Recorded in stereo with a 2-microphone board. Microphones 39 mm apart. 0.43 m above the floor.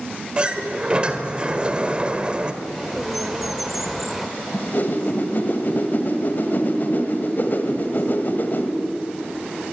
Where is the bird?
5° right (ahead or behind), 1.5 m.